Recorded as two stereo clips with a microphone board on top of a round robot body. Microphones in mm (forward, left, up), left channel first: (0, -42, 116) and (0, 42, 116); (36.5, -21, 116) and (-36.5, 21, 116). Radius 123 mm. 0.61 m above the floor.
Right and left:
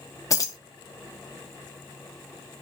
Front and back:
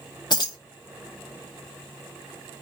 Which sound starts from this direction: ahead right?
Keys jangling, at 0.3 s.